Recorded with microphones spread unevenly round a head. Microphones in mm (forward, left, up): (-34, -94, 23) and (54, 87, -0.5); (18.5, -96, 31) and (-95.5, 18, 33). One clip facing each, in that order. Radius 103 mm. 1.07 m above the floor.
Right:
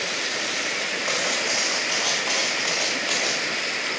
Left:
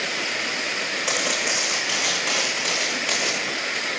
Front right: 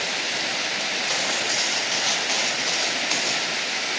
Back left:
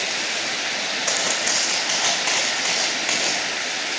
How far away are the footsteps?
About 5 m.